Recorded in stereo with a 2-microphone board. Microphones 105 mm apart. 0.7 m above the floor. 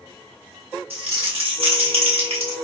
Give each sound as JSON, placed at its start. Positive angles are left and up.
{"t": 0.9, "sound": "crumpling", "side_deg": -70, "distance_m": 1.5}